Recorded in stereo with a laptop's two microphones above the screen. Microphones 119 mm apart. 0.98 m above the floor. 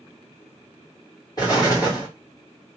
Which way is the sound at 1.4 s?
30° left (ahead or behind).